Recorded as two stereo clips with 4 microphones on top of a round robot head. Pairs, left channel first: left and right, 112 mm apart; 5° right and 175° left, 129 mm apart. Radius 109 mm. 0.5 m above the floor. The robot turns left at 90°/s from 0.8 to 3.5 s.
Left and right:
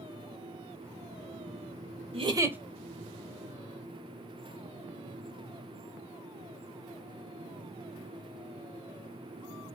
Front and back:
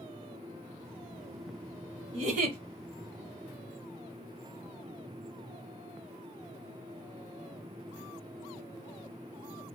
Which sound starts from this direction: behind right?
A giggle, at 2.1 s.